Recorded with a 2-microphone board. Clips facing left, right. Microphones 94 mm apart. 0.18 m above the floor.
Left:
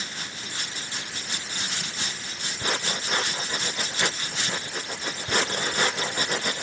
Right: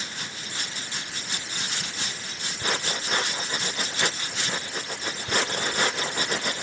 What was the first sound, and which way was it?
Only background noise.